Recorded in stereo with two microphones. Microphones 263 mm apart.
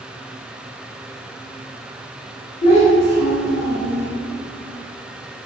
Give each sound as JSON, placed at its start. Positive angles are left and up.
{"t": 2.6, "sound": "a child speaking", "side_deg": 25, "distance_m": 1.8}